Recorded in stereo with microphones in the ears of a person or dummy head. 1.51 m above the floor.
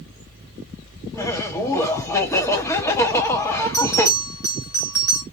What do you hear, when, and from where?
1.1 s laughter: 20° left (ahead or behind), 1.3 m
3.7 s a bell: 15° left (ahead or behind), 1.6 m